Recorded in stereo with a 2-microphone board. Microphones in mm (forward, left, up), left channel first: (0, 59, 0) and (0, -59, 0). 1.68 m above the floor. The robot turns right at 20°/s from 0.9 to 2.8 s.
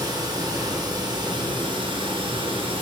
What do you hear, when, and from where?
0.0 s running water: 125° right, 1.1 m; by 2.8 s 90° right, 1.1 m